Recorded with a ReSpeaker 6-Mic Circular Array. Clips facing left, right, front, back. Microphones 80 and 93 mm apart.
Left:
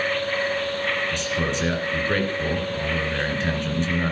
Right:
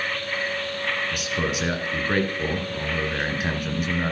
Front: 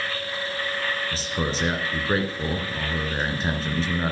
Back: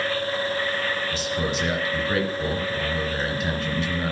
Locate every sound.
1.1 s a man speaking: 15° right, 1.7 m